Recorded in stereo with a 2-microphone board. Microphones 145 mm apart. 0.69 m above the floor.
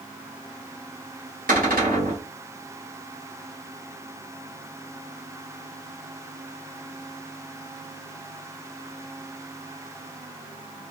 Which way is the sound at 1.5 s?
75° right (ahead or behind).